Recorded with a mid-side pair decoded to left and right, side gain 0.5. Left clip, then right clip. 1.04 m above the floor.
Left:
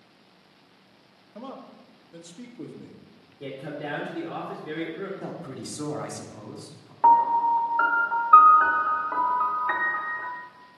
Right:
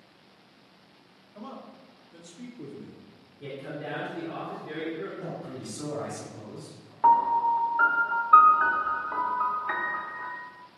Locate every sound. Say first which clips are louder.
1.4 s a man speaking: left 2 dB; 55° left, 1.6 m
3.4 s a man speaking: left 2 dB; 55° left, 2.5 m
5.2 s a man speaking: left 1 dB; 50° left, 3 m
7.0 s a piano: left 2 dB; 25° left, 1.2 m